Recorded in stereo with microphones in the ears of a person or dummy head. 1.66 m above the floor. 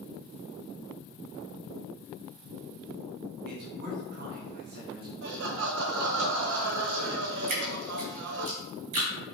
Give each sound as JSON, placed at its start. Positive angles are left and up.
{"t": 3.5, "sound": "a man speaking", "side_deg": -50, "distance_m": 2.0}
{"t": 5.2, "sound": "laughter", "side_deg": -65, "distance_m": 1.3}
{"t": 7.5, "sound": "dripping", "side_deg": -35, "distance_m": 2.5}